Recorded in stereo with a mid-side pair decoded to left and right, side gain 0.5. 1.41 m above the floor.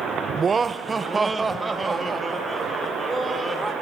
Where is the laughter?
40° right, 0.7 m; by 3.7 s 15° right, 5.5 m.